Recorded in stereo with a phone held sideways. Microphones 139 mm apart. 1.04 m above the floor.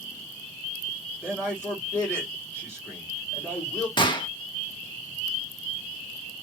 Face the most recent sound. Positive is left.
turn(degrees=30)  # may be behind; listen again after turning